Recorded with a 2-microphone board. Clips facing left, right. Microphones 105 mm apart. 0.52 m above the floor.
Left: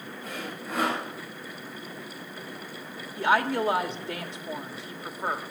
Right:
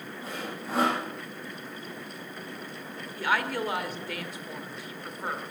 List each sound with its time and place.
0.2 s sawing: 30° right (ahead or behind), 9 m
3.2 s a woman speaking: 30° left (ahead or behind), 1.4 m